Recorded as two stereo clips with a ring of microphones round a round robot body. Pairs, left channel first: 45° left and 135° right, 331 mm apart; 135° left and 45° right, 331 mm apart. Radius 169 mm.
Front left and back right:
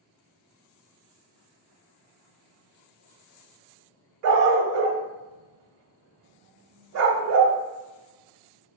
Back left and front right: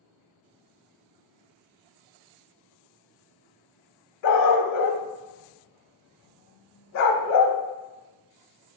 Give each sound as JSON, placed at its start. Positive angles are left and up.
{"t": 4.2, "sound": "a dog barking", "azimuth_deg": 180, "distance_m": 0.6}